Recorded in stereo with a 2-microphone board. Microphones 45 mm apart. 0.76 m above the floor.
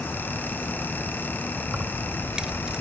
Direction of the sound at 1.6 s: 20° right (ahead or behind).